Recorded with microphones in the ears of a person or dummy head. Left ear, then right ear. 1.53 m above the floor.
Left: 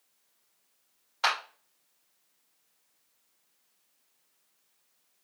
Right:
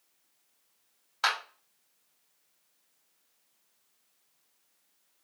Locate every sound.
1.2 s a clap: 10° right (ahead or behind), 2.5 m